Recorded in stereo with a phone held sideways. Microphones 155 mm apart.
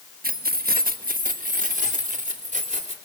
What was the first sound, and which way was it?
Keys jangling, 75° right (ahead or behind).